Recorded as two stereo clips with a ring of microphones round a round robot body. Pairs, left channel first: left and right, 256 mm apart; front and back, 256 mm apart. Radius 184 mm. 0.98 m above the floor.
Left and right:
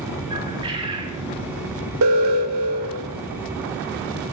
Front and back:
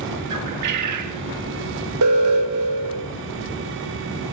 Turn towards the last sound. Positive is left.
turn(degrees=-135)